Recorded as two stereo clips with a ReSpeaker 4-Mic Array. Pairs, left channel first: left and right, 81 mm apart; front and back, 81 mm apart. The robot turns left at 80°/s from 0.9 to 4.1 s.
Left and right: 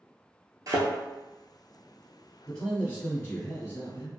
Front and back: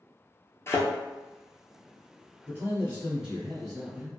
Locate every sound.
0.7 s a thud: 55° right, 0.7 m
2.5 s a man speaking: 170° left, 1.6 m; by 4.1 s 40° left, 1.6 m